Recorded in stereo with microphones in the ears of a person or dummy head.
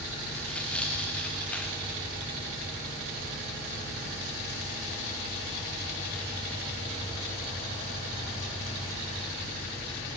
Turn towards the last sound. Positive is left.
turn(degrees=10)  # may be behind; listen again after turning